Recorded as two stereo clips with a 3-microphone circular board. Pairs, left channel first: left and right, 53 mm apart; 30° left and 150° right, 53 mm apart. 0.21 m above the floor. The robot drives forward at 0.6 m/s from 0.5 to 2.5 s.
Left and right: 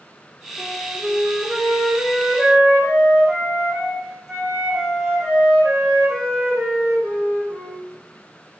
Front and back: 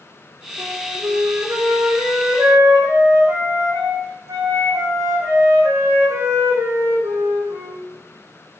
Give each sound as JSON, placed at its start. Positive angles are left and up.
{"t": 0.6, "sound": "a flute", "azimuth_deg": -165, "distance_m": 6.5}